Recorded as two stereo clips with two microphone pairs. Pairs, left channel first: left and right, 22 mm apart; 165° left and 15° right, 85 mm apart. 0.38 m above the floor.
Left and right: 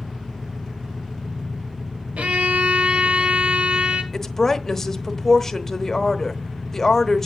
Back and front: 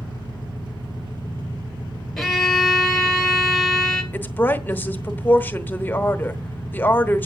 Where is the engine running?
25° right, 7 m.